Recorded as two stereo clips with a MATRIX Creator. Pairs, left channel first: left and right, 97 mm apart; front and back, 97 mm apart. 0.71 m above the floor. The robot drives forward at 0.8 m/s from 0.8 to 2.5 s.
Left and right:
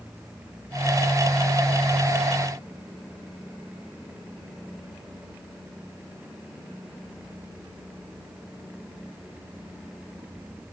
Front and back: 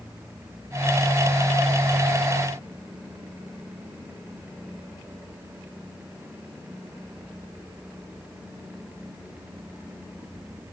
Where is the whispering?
No whispering in this recording.